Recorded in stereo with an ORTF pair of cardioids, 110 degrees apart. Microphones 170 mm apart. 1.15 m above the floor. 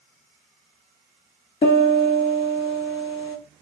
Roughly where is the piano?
Ahead left.